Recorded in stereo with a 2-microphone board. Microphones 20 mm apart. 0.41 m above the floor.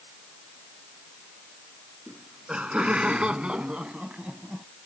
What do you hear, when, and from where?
2.1 s laughter: 75° right (ahead or behind); by 4.7 s 60° right (ahead or behind)